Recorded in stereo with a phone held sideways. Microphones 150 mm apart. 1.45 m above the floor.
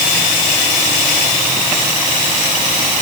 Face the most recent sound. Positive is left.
No sound to turn to.